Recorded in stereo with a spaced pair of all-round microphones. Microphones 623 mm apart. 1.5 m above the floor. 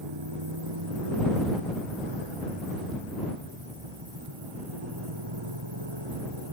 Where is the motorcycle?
40° right (ahead or behind).